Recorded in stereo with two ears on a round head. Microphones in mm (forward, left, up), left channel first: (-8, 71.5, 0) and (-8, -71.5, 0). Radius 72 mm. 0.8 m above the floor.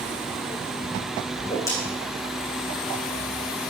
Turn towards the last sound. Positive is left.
turn(degrees=20)  # may be behind; listen again after turning